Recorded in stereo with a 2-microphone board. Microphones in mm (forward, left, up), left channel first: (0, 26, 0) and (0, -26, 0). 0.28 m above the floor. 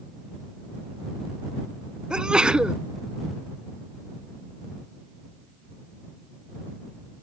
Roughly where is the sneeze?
Centre.